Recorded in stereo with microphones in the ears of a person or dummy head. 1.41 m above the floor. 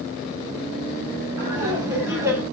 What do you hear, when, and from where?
1.4 s laughter: 20° right (ahead or behind), 9.5 m; by 2.4 s 15° right (ahead or behind), 8.5 m